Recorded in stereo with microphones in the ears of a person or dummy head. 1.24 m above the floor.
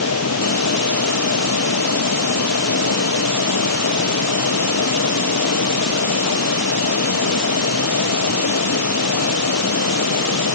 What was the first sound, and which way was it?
A fan, 85° left.